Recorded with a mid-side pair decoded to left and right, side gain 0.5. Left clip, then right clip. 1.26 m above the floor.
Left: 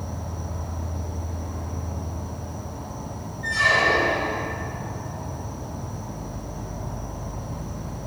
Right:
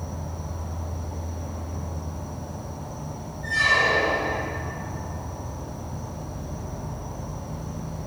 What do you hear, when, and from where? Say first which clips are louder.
0.0 s an insect: left 1 dB; 20° left, 0.7 m
3.4 s a squeak: left 1 dB; 45° left, 1.3 m